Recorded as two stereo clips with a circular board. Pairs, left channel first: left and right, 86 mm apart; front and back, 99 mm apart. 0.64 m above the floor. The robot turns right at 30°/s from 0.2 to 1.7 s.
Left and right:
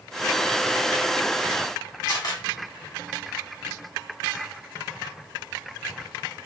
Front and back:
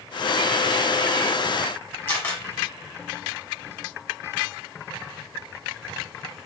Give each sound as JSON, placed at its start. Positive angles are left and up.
{"t": 2.1, "sound": "a camera shutter", "azimuth_deg": 70, "distance_m": 1.4}